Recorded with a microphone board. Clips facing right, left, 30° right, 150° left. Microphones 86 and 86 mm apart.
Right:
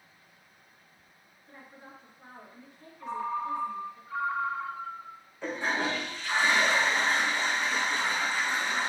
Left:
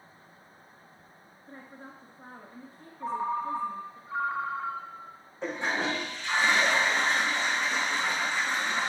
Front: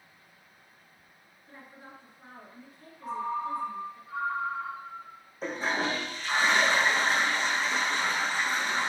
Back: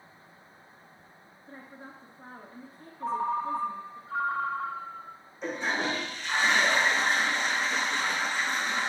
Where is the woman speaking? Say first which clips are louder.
Left 3 dB, back 3 dB; 115° left, 1.9 m.